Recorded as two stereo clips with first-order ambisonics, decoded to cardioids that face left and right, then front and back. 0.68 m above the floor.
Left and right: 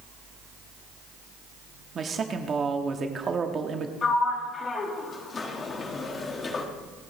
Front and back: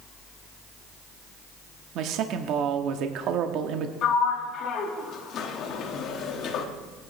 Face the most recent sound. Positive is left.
turn(degrees=30)